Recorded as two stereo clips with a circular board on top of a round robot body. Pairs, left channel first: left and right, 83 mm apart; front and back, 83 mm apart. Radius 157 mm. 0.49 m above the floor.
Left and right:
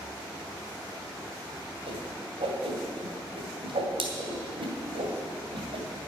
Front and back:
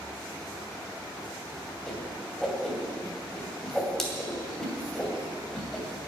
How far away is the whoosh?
About 2.5 m.